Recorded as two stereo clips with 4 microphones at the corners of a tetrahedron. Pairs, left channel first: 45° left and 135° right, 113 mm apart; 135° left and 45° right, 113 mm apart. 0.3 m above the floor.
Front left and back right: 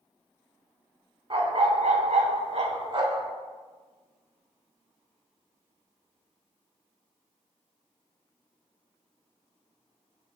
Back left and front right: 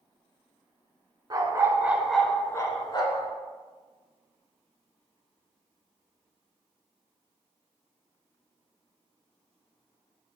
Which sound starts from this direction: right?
A dog barking, at 1.3 s.